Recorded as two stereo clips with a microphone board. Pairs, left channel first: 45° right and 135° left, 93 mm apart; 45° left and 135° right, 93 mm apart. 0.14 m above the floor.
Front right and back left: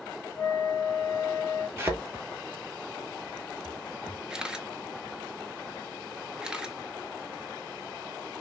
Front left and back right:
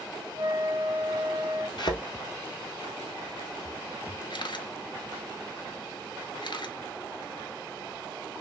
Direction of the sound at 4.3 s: 55° left.